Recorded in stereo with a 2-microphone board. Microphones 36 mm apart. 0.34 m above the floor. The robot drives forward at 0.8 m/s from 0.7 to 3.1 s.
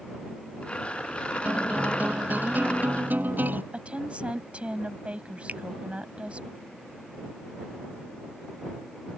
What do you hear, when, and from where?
1.4 s a guitar: 50° right (ahead or behind); by 3.6 s 60° right (ahead or behind)
3.7 s a woman speaking: 35° right (ahead or behind)
5.5 s a finger snap: 45° right (ahead or behind)